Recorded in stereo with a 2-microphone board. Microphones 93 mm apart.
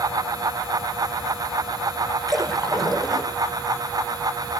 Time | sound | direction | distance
2.3 | a splash | 45° right (ahead or behind) | 4.5 m